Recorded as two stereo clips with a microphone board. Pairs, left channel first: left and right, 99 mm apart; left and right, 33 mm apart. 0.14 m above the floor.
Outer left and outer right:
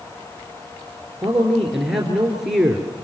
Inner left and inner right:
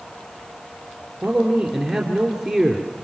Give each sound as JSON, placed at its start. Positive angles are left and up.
{"t": 1.2, "sound": "a man speaking", "side_deg": -5, "distance_m": 2.5}